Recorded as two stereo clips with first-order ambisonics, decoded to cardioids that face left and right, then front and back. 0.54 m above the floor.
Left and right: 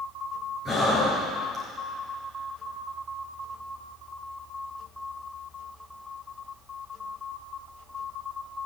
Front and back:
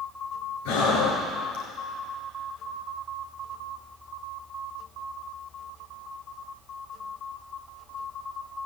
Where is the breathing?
5° left, 3.5 m.